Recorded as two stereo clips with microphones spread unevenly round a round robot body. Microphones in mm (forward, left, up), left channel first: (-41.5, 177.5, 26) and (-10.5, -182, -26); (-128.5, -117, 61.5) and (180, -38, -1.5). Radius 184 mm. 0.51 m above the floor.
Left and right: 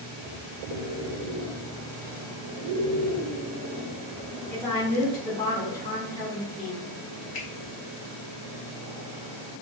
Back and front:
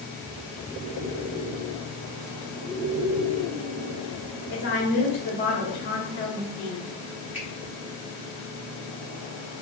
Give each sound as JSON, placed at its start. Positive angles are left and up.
{"t": 4.5, "sound": "a woman speaking", "azimuth_deg": 180, "distance_m": 1.1}
{"t": 7.3, "sound": "a finger snap", "azimuth_deg": 75, "distance_m": 1.3}